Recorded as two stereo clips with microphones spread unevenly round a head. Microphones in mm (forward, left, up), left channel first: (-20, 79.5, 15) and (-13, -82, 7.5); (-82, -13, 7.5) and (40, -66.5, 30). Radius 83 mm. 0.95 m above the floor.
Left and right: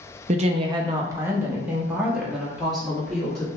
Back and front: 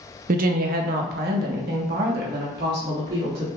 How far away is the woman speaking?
About 0.6 m.